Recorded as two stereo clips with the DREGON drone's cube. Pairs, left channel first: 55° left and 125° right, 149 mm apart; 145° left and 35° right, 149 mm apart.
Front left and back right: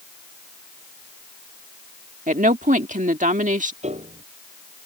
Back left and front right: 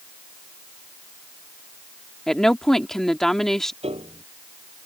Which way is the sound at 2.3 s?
130° right.